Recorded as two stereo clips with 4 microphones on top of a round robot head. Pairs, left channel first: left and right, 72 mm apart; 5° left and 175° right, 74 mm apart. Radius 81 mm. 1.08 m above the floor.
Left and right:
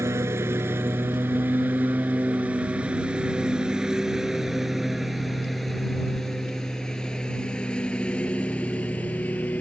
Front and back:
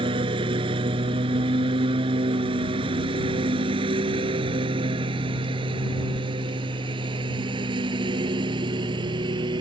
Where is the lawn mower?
150° right; by 9.6 s 165° left.